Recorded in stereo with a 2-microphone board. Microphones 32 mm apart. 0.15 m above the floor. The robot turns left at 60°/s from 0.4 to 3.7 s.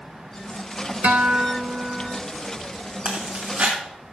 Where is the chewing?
65° right (ahead or behind), 3 m; by 3.7 s 75° right (ahead or behind), 3 m.